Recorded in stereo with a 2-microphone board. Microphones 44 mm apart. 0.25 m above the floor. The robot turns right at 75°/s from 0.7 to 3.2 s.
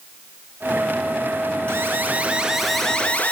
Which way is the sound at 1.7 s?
75° right.